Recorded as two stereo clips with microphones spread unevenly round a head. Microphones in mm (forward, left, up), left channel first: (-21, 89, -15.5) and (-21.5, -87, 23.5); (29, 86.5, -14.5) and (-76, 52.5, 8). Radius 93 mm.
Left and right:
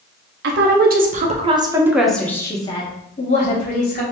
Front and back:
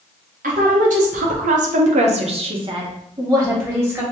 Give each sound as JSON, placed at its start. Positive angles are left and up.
{"t": 0.4, "sound": "a woman speaking", "azimuth_deg": -120, "distance_m": 0.9}